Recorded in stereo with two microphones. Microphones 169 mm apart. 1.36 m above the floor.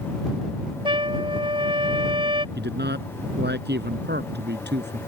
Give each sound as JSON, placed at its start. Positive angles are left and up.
{"t": 0.8, "sound": "a trumpet", "side_deg": -30}
{"t": 2.5, "sound": "a man speaking", "side_deg": -85}